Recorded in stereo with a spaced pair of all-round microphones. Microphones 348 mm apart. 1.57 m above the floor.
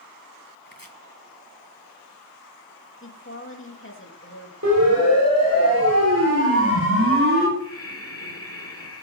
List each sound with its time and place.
0.7 s chopping: 70° left (ahead or behind), 1.6 m
3.0 s a woman speaking: 35° left (ahead or behind), 3 m
4.6 s a siren: 50° right (ahead or behind), 8 m; by 7.5 s 35° right (ahead or behind), 4.5 m
7.6 s breathing: 40° left (ahead or behind), 1.9 m